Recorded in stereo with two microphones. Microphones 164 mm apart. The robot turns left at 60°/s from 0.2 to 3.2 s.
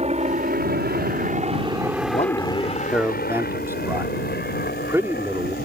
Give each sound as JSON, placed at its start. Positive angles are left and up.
{"t": 0.0, "sound": "a helicopter", "side_deg": -40}
{"t": 2.1, "sound": "a man speaking", "azimuth_deg": 50}